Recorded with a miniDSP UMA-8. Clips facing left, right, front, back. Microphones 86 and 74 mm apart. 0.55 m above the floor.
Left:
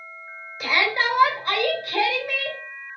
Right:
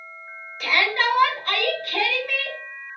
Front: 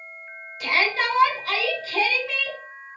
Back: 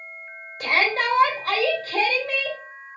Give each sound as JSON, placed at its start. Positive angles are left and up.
{"t": 0.6, "sound": "a shout", "azimuth_deg": 165, "distance_m": 1.9}